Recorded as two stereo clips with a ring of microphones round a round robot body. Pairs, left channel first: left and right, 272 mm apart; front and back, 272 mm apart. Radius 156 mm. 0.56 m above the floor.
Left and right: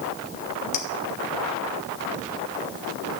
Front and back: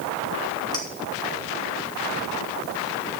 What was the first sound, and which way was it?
A clink, 75° left.